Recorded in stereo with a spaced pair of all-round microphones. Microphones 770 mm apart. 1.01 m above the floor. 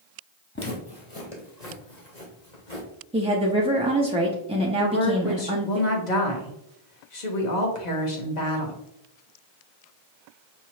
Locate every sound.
0.6 s footsteps: 15° left (ahead or behind), 1.4 m; by 2.9 s 70° left (ahead or behind), 3.5 m
3.1 s a woman speaking: 10° right (ahead or behind), 0.6 m
4.8 s a woman speaking: 65° left (ahead or behind), 1.3 m